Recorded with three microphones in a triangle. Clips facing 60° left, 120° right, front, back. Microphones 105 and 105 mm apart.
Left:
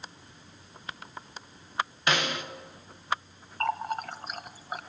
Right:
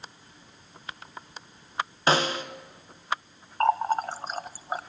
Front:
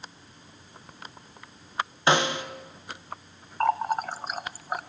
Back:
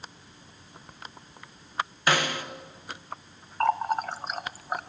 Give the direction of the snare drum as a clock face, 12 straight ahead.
2 o'clock.